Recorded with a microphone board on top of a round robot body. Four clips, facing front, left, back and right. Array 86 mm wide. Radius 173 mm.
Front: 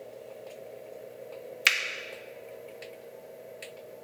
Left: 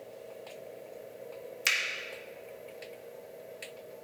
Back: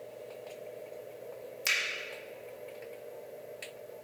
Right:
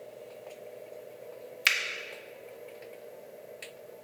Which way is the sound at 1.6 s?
25° right.